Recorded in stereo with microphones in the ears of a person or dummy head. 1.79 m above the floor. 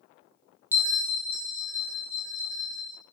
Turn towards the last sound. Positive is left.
turn(degrees=-20)  # may be behind; listen again after turning